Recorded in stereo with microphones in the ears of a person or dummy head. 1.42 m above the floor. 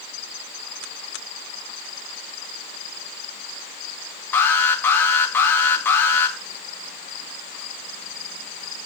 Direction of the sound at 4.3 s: 10° left (ahead or behind).